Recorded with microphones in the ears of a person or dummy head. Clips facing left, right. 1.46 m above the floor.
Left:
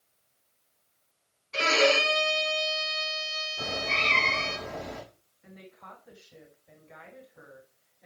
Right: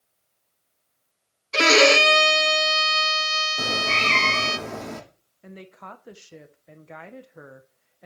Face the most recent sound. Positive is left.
turn(degrees=-70)  # may be behind; listen again after turning